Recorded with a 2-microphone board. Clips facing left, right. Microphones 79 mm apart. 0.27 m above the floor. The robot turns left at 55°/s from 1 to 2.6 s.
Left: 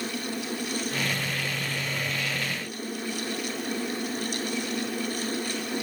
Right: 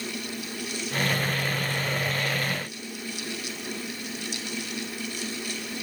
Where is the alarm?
No alarm in this recording.